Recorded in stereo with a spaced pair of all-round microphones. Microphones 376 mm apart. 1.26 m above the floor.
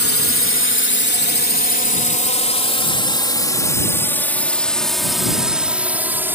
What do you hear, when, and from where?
0.0 s a drone: 35° left (ahead or behind); by 6.3 s 5° right (ahead or behind)